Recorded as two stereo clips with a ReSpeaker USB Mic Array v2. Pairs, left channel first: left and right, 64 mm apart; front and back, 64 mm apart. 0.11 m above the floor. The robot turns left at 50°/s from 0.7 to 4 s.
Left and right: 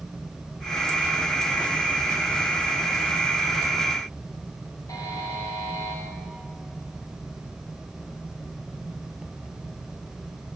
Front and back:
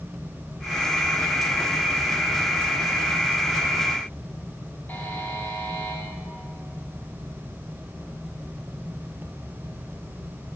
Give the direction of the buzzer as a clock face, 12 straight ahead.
10 o'clock.